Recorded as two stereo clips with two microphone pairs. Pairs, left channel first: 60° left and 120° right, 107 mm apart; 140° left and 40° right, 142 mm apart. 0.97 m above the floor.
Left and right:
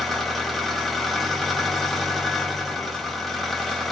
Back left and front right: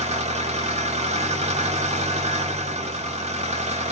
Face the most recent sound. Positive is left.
turn(degrees=-25)